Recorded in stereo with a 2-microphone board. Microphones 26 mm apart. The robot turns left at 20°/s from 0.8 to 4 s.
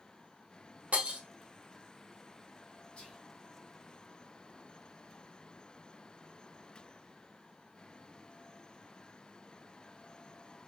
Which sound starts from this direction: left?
Whispering, at 3.0 s.